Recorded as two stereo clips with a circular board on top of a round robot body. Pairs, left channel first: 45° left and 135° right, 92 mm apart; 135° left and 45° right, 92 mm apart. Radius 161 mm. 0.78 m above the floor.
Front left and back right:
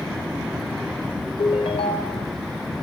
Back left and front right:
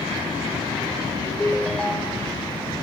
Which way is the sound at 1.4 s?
50° left.